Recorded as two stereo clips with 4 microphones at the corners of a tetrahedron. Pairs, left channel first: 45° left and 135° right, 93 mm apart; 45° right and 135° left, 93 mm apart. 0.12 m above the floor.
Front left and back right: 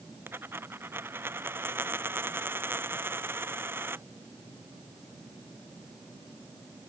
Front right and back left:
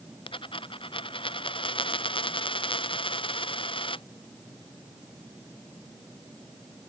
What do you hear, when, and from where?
0.3 s a dropped coin: 65° right